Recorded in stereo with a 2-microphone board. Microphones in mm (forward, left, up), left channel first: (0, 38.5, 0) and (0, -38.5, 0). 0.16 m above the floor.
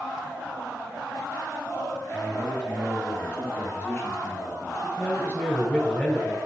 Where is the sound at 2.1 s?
20° left (ahead or behind), 3 m; by 4.9 s 30° left (ahead or behind), 2.0 m.